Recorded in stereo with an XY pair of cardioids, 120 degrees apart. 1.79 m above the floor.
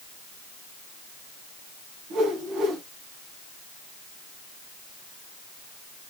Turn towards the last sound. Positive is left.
turn(degrees=-65)